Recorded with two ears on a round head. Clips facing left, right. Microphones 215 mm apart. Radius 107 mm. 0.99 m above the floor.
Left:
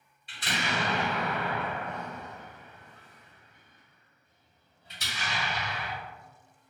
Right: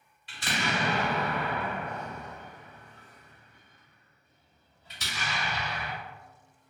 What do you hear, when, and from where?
0.3 s an explosion: 55° right (ahead or behind), 1.6 m